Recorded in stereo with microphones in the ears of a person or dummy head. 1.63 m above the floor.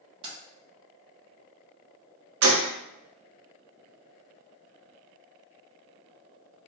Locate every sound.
0.2 s keys jangling: 25° right (ahead or behind), 0.9 m
2.4 s a gunshot: 75° right (ahead or behind), 0.7 m